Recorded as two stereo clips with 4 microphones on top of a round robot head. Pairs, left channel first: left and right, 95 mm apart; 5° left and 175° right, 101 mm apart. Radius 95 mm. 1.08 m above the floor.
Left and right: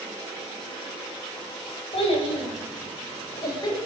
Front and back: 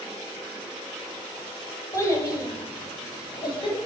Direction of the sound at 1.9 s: 65° left.